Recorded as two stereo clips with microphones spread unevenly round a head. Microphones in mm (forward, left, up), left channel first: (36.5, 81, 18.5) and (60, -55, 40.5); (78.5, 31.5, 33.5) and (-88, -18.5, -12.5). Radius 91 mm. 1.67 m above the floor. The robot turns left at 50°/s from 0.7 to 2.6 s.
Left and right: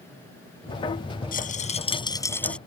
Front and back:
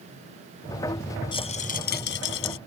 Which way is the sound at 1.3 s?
75° left.